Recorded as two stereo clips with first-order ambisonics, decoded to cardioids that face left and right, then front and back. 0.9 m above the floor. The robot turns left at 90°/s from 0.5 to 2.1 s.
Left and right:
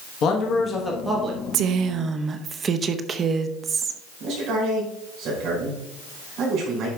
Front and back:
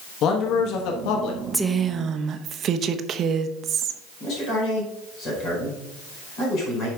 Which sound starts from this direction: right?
A woman speaking, at 1.5 s.